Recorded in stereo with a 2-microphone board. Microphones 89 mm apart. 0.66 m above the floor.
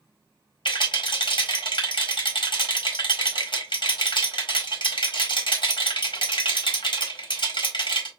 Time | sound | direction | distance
0.7 | a rattle | 60° left (ahead or behind) | 1.7 m